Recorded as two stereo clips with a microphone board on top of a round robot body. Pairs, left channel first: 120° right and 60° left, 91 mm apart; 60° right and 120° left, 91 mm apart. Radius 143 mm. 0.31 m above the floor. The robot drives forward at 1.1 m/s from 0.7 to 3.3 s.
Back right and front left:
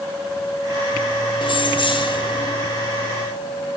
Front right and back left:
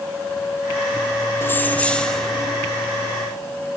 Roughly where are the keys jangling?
Behind right.